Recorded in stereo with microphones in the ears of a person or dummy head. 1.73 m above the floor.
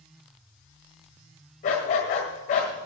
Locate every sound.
1.6 s a dog barking: 35° left (ahead or behind), 1.9 m